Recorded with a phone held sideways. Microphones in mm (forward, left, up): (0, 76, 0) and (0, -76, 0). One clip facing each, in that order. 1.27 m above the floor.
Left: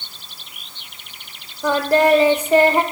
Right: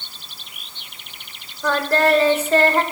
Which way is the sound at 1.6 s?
15° left (ahead or behind).